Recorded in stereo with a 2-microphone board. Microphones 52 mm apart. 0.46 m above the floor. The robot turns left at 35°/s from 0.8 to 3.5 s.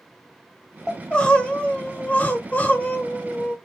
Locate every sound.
0.9 s crying: 15° left (ahead or behind), 0.8 m; by 3.5 s 20° left (ahead or behind), 0.8 m